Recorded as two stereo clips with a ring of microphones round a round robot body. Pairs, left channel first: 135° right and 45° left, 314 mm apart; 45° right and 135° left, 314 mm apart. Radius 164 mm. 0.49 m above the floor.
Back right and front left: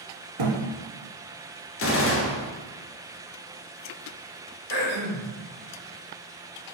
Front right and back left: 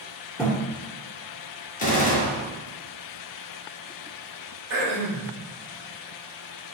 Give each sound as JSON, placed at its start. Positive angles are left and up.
{"t": 0.4, "sound": "a thud", "azimuth_deg": 45, "distance_m": 1.2}
{"t": 1.8, "sound": "a gunshot", "azimuth_deg": -105, "distance_m": 0.9}
{"t": 4.7, "sound": "throat clearing", "azimuth_deg": 85, "distance_m": 1.7}